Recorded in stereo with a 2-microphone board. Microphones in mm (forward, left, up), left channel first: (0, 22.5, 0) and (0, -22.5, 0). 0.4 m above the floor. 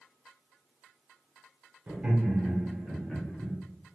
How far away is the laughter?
About 1.2 m.